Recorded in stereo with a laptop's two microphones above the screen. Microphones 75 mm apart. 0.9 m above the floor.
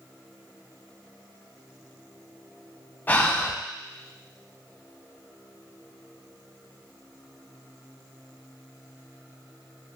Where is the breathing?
25° left (ahead or behind), 0.5 m.